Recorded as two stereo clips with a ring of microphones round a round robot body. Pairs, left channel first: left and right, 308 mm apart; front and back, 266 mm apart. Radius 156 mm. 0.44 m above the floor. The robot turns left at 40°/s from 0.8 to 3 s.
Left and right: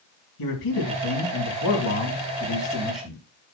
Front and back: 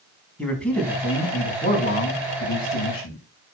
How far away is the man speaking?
About 5 m.